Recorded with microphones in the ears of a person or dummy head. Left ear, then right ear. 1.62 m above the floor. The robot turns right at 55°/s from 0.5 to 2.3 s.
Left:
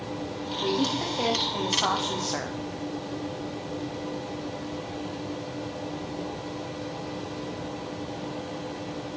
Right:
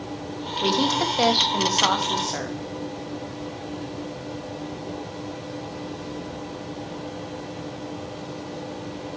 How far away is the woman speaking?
About 0.7 m.